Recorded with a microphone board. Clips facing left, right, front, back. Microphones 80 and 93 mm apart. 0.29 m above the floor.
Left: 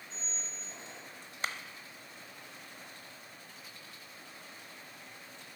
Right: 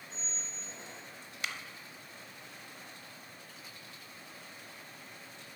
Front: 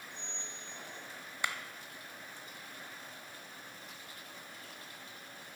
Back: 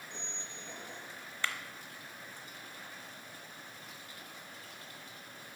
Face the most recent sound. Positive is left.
turn(degrees=65)